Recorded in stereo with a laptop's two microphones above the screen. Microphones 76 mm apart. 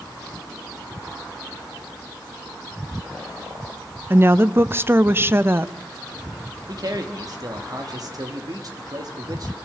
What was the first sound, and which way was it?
A woman speaking, 30° right (ahead or behind).